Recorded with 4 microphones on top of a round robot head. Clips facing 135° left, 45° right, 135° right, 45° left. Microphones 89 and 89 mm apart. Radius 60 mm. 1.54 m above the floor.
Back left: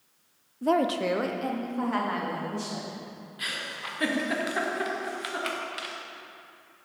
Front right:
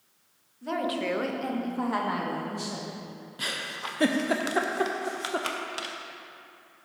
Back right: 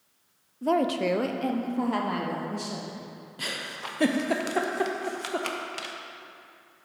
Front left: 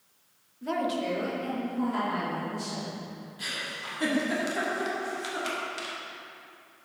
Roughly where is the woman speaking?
Behind.